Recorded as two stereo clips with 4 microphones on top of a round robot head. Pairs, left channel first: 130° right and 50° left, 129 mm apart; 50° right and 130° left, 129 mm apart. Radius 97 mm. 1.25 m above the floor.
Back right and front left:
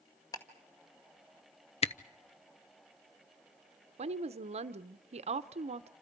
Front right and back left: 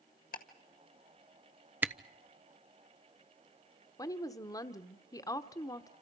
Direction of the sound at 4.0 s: 10° left.